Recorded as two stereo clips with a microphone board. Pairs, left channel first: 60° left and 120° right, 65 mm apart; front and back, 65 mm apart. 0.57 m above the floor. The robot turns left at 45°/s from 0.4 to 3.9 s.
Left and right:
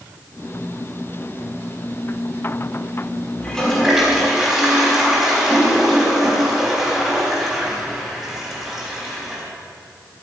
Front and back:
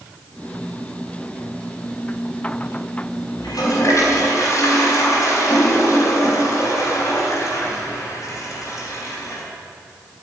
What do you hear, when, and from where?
3.4 s a toilet flushing: 10° right, 4 m; by 9.4 s 35° right, 4 m